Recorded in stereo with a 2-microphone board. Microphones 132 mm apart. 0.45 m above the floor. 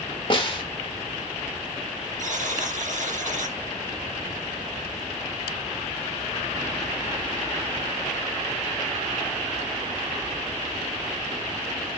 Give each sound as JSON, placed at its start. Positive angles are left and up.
{"t": 0.3, "sound": "a snare drum", "side_deg": 40, "distance_m": 1.4}
{"t": 2.2, "sound": "a buzzer", "side_deg": -70, "distance_m": 2.5}